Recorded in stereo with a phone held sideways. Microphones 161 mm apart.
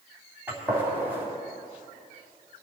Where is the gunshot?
10° right (ahead or behind), 3.5 m.